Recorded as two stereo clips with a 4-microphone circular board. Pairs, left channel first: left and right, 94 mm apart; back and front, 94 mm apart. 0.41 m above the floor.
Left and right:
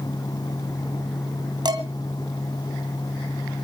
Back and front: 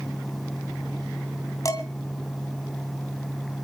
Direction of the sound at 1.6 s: 125° right.